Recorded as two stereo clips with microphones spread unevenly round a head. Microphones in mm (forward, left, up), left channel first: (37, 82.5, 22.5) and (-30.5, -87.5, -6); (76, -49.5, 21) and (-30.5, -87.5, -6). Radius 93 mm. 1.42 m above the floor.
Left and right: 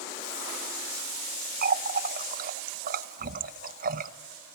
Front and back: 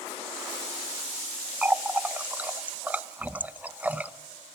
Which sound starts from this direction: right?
A running tap, at 1.6 s.